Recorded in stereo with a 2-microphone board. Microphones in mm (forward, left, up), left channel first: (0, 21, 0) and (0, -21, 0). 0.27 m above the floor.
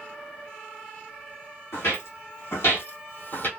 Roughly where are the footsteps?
Left.